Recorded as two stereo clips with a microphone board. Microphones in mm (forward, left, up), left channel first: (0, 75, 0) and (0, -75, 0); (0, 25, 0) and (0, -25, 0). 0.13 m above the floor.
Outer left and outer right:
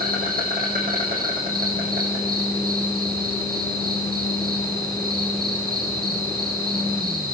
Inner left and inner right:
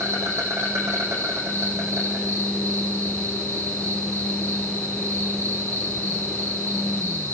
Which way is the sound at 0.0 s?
75° right (ahead or behind).